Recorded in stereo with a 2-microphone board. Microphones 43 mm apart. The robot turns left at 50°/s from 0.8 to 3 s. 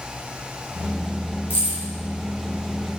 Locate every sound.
1.5 s keys jangling: 65° left (ahead or behind), 1.7 m; by 1.8 s 50° left (ahead or behind), 1.7 m